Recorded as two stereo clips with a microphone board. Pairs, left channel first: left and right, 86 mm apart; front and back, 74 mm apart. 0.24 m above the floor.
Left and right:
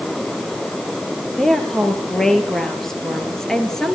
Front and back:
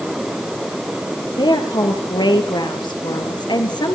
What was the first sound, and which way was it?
A woman speaking, 5° left.